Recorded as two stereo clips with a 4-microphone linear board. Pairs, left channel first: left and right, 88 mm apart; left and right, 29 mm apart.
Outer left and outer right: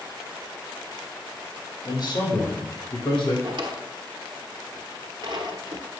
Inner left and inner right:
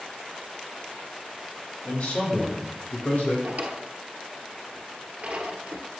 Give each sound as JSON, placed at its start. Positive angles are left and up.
{"t": 1.9, "sound": "a man speaking", "side_deg": 45, "distance_m": 3.0}
{"t": 3.4, "sound": "a drawer", "side_deg": -60, "distance_m": 1.1}